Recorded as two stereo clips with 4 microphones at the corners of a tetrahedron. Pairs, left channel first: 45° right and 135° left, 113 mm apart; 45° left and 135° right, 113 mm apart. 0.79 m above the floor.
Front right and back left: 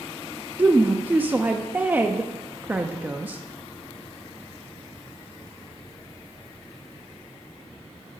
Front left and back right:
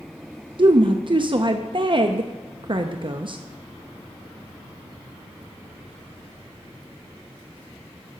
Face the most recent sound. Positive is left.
turn(degrees=-155)